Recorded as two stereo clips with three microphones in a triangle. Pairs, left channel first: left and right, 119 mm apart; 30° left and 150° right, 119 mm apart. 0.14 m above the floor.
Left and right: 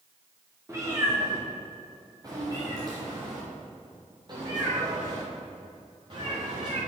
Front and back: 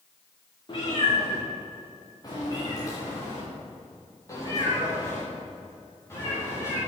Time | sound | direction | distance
0.7 | a cat meowing | 25° right | 7.5 m